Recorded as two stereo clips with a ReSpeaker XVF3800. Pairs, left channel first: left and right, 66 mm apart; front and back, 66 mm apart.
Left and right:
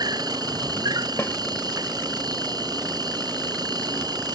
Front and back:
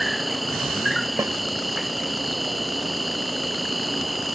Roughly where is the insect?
Right.